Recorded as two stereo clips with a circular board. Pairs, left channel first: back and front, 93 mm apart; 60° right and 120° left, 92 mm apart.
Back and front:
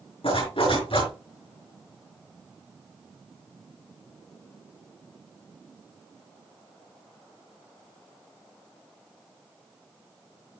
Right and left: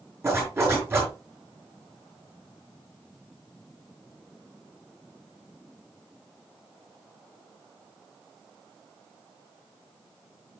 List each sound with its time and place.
0.2 s a zipper: 175° right, 5.5 m